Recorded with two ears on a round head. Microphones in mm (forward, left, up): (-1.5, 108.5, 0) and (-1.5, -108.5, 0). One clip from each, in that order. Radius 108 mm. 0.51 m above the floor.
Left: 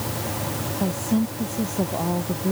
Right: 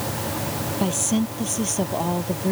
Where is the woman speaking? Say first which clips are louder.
Right 2 dB; 80° right.